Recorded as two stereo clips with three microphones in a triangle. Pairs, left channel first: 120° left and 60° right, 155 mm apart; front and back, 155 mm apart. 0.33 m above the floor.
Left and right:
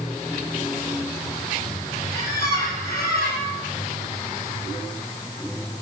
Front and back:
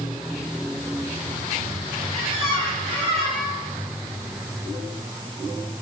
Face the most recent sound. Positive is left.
turn(degrees=130)